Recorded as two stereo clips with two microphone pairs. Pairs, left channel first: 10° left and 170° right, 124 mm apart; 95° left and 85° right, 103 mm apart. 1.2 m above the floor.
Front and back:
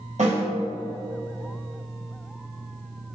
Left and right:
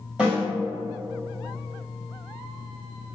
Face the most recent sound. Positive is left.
turn(degrees=-170)